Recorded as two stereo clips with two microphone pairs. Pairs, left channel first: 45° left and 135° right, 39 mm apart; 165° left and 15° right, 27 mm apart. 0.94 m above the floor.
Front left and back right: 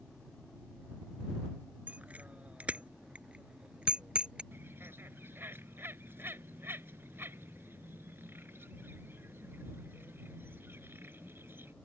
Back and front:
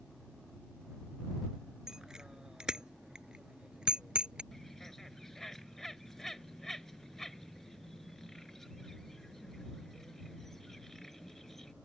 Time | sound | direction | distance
1.9 | a bicycle bell | 85° right | ?
4.5 | a bird | 115° right | ?